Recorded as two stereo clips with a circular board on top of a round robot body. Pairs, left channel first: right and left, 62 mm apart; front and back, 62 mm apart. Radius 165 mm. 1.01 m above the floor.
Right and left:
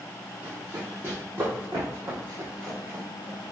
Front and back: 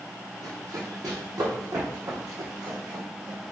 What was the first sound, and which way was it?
Running footsteps, 150° left.